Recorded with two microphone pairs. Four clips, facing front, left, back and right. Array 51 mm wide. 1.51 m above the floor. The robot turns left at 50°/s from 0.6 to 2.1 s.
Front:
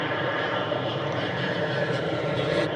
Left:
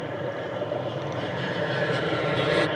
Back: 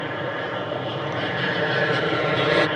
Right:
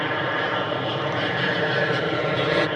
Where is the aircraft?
80° right; by 2.8 s 160° right.